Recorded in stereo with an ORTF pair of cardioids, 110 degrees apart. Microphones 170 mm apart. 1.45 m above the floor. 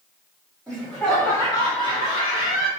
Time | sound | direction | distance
0.7 | laughter | 5° right | 1.3 m